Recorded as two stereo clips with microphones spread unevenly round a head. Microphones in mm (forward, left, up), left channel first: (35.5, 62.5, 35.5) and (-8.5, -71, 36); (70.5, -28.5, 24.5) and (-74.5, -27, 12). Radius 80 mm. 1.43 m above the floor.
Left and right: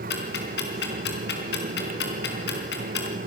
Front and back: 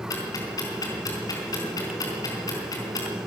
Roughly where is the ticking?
Ahead left.